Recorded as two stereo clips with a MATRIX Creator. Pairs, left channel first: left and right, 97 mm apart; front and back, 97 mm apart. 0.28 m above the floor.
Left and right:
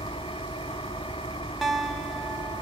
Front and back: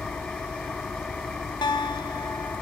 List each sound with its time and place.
0.0 s an engine running: 80° left, 1.0 m
1.6 s a guitar: straight ahead, 2 m